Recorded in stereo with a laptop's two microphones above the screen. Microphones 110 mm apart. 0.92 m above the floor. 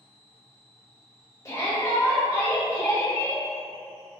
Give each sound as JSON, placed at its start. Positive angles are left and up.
{"t": 1.4, "sound": "a shout", "side_deg": 30, "distance_m": 0.7}